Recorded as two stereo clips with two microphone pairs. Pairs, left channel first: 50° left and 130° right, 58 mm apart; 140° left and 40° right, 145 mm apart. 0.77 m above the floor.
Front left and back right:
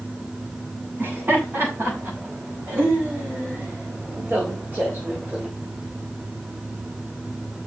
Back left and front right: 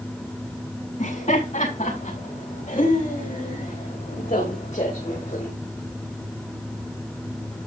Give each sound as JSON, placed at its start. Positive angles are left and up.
{"t": 1.0, "sound": "laughter", "azimuth_deg": 175, "distance_m": 6.5}